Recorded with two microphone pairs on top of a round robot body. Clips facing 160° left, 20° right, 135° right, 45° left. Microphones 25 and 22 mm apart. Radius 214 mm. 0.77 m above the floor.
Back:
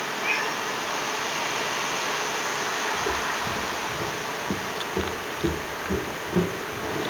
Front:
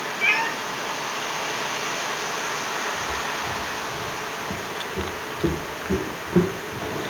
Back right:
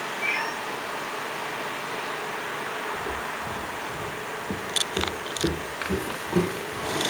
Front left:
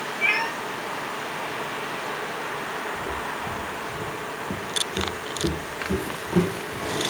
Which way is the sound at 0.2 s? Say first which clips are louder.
Front 6 dB, front left 5 dB; 5° right.